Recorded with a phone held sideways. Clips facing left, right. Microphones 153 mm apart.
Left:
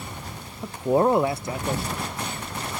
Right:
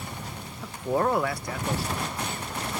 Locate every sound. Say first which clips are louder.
0.6 s a man speaking: left 5 dB; 25° left (ahead or behind)